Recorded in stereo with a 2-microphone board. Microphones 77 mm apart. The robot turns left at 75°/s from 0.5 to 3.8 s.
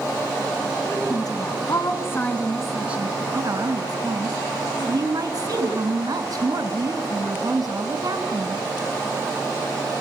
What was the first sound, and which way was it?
A woman speaking, 135° left.